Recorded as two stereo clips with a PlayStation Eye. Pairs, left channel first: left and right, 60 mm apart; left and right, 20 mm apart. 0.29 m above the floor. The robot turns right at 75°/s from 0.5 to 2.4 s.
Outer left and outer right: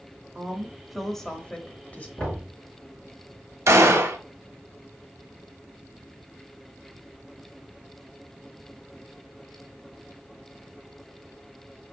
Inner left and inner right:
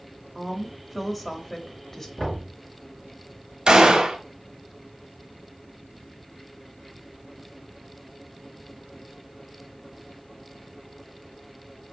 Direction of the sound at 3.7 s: 50° right (ahead or behind).